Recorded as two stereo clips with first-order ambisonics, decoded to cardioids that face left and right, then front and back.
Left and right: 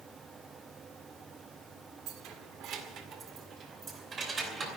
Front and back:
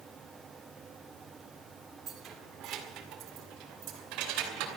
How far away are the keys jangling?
About 1.7 m.